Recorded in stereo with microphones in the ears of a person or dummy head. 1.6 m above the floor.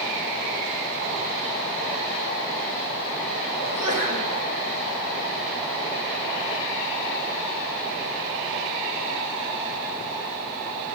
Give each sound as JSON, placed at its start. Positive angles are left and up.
{"t": 3.6, "sound": "a sneeze", "side_deg": 85, "distance_m": 6.5}